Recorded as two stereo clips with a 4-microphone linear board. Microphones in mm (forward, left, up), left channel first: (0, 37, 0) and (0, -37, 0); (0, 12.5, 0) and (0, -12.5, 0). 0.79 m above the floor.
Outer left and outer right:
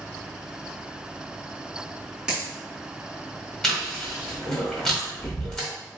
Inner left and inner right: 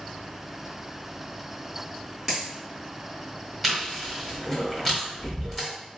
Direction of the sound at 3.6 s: 5° left (ahead or behind).